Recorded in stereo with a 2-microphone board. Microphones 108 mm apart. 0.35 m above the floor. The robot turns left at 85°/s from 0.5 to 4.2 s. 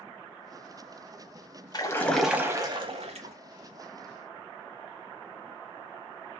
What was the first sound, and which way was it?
A splash, 40° left.